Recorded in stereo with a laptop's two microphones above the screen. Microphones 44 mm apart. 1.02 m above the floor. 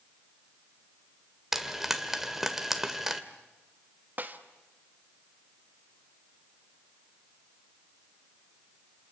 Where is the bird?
I don't hear a bird.